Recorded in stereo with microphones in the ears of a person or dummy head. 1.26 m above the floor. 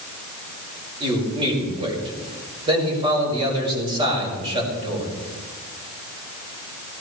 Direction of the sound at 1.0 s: 25° right (ahead or behind).